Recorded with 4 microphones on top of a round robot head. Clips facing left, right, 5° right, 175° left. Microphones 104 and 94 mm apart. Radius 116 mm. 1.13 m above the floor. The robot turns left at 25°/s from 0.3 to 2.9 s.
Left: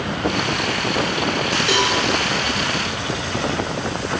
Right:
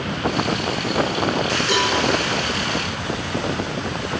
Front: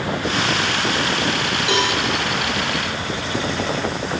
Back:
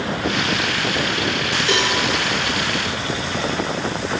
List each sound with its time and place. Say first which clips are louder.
1.7 s a cowbell: left 2 dB, even; 70° left, 8 m; by 2.0 s 60° left, 8 m